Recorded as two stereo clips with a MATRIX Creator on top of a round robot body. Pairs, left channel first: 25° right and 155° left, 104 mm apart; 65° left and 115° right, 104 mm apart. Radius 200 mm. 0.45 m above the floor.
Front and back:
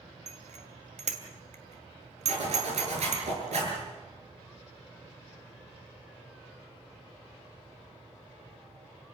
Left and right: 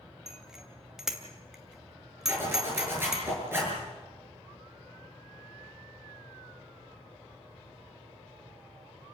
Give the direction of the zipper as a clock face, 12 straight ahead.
6 o'clock.